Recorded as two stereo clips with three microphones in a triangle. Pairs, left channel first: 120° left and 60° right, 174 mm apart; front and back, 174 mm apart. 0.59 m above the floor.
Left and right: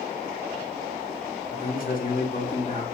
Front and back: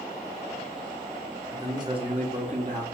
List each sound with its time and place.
1.5 s a man speaking: 110° left, 1.2 m; by 2.9 s 165° left, 1.1 m